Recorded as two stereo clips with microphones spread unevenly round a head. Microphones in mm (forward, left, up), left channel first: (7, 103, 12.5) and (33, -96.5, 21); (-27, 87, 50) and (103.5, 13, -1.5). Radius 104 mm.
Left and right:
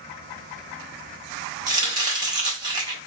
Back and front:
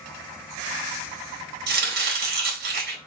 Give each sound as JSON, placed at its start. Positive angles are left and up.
{"t": 1.7, "sound": "chopping", "azimuth_deg": -10, "distance_m": 2.0}